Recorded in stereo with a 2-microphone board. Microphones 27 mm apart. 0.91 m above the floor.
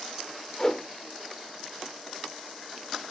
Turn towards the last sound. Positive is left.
turn(degrees=25)  # may be behind; listen again after turning